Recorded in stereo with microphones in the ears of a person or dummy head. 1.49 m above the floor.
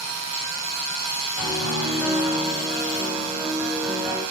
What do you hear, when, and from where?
1.4 s a piano: 5° left (ahead or behind), 7 m